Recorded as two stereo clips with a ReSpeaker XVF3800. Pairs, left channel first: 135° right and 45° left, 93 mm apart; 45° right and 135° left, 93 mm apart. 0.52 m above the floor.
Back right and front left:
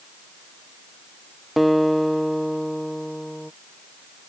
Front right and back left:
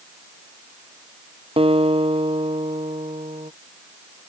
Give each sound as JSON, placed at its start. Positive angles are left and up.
{"t": 1.6, "sound": "a guitar", "azimuth_deg": 135}